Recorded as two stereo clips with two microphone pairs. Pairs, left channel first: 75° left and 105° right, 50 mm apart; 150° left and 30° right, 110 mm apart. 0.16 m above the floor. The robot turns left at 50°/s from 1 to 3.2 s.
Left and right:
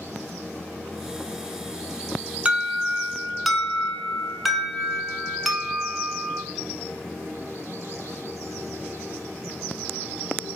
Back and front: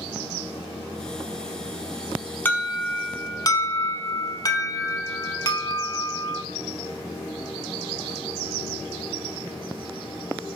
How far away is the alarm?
About 0.8 m.